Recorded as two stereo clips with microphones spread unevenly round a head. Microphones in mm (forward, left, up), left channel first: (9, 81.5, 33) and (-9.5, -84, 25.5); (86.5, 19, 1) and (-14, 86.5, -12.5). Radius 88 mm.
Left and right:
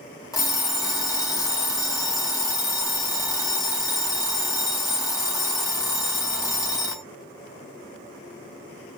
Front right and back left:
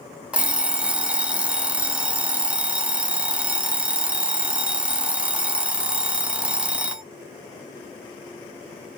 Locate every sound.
0.3 s an alarm clock: 65° left, 0.5 m